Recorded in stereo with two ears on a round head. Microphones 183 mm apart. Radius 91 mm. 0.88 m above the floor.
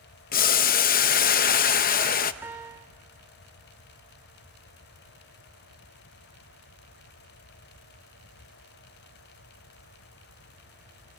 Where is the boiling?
45° left (ahead or behind), 0.7 m.